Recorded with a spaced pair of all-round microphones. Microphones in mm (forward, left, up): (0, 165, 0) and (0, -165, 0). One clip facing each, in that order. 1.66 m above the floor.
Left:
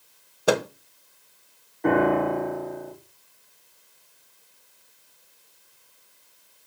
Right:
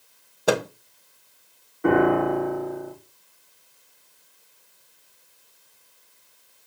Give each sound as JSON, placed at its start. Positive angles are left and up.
{"t": 0.5, "sound": "a microwave", "side_deg": 0, "distance_m": 0.7}
{"t": 1.8, "sound": "a piano", "side_deg": -10, "distance_m": 4.5}